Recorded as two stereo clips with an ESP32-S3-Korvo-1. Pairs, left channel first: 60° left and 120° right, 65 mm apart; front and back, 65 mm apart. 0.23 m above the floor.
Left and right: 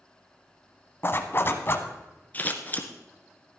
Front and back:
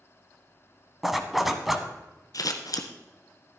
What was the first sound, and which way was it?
A zipper, 95° left.